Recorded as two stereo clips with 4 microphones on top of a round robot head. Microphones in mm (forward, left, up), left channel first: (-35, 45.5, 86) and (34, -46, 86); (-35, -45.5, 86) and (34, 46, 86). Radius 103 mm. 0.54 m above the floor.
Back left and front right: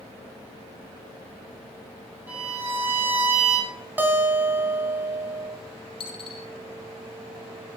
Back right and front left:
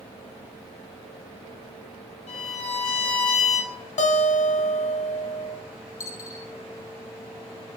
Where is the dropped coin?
170° left, 3 m.